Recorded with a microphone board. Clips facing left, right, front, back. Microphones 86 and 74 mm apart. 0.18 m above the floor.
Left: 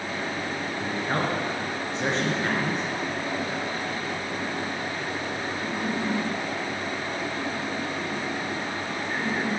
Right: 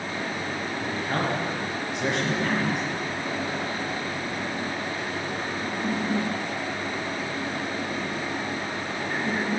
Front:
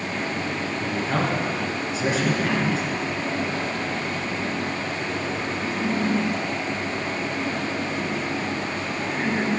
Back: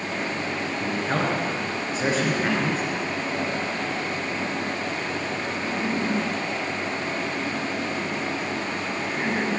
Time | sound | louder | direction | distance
0.8 | a man speaking | left 1 dB, even | 135° left | 2.5 m